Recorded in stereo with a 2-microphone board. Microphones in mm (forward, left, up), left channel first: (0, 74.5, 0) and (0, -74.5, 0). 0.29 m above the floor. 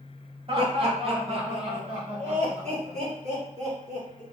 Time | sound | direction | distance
0.5 | laughter | 40° right (ahead or behind) | 1.3 m